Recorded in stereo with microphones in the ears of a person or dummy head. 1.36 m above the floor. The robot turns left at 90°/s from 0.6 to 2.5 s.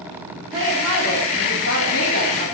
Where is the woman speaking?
155° right, 4 m; by 2.4 s 40° left, 4 m.